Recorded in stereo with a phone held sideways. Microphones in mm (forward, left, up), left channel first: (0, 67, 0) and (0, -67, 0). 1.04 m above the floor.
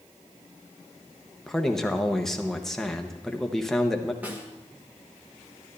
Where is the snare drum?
10° right (ahead or behind), 1.4 m.